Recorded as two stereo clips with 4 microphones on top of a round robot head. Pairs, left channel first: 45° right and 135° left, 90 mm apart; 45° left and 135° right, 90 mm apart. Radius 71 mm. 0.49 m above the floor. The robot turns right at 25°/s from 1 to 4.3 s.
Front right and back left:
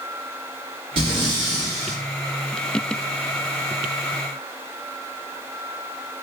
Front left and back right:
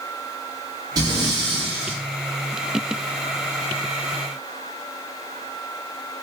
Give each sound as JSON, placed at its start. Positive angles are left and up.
{"t": 1.0, "sound": "breathing", "azimuth_deg": 170, "distance_m": 1.5}